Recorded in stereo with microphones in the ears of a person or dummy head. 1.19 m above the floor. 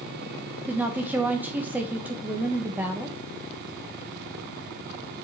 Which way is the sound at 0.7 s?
10° right (ahead or behind).